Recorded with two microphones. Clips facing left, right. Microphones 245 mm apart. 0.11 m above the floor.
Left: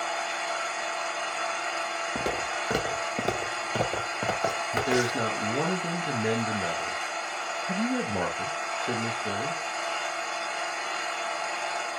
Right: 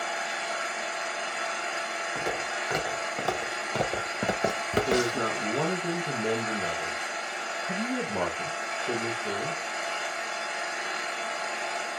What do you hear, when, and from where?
0.0 s an engine running: 15° right (ahead or behind), 1.3 m
2.1 s footsteps: 40° left (ahead or behind), 1.5 m; by 5.3 s 50° right (ahead or behind), 1.0 m
4.7 s a man speaking: 15° left (ahead or behind), 1.2 m